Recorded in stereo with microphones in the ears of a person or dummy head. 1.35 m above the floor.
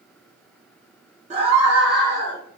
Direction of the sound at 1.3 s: 35° right (ahead or behind).